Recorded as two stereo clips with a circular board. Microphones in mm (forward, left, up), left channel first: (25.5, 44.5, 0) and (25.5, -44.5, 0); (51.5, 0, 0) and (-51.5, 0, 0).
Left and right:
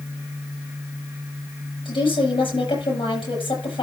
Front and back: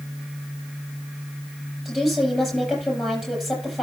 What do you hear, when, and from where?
1.9 s a woman speaking: 90° left, 8 m